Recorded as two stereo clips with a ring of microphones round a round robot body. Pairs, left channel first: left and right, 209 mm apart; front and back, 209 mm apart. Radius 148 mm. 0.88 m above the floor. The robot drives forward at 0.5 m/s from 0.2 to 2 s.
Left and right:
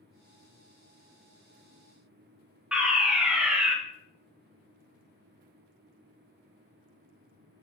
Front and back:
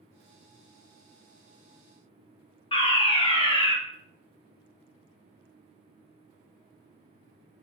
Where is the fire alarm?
10° right, 1.3 m.